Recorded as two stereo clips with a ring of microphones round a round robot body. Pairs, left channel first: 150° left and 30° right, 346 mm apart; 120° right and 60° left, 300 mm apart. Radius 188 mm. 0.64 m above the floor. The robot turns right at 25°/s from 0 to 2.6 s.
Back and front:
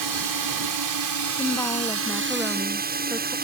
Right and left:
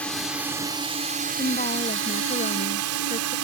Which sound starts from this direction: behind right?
A woman speaking, at 1.4 s.